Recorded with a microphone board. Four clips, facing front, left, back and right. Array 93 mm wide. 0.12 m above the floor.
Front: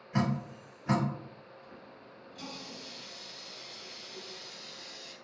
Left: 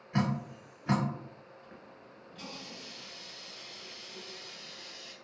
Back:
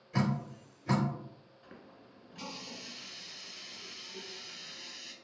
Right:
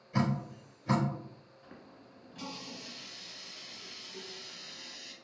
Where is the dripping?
60° left, 1.9 m.